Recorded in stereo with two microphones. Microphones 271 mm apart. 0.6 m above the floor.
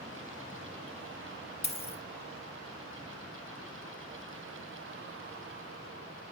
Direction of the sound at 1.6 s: 25° left (ahead or behind).